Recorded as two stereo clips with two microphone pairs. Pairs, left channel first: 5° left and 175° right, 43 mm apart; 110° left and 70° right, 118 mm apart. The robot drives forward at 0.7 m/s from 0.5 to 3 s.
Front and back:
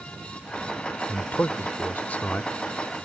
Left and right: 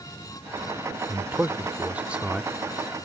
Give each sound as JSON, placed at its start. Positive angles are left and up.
{"t": 1.1, "sound": "a man speaking", "azimuth_deg": 0}